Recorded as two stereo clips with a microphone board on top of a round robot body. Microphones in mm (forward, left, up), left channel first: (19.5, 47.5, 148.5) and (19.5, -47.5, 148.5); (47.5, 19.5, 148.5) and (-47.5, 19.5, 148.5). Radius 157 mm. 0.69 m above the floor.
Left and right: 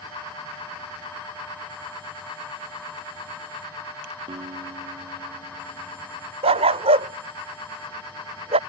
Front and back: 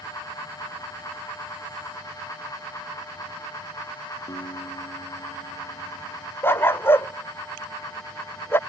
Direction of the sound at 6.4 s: 70° right.